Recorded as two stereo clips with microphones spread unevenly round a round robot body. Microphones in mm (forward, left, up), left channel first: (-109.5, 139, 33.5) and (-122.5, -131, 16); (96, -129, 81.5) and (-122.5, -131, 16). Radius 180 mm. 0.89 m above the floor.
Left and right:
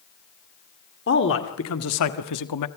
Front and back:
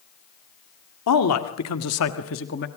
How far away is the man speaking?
About 2 m.